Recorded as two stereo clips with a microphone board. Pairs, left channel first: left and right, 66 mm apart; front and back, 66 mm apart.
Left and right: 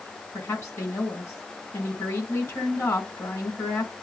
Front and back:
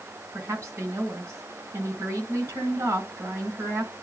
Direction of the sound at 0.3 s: 135° left.